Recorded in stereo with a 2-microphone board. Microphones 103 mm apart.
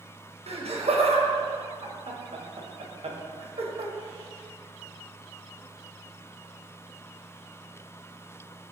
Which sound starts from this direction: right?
Laughter, at 0.5 s.